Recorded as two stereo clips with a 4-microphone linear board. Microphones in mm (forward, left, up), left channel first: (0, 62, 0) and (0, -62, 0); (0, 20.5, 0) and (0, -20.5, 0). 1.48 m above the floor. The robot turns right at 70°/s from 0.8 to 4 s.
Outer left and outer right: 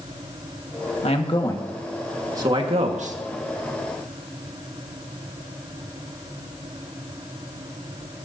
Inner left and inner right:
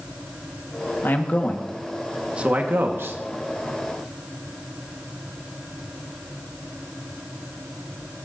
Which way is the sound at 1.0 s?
115° left.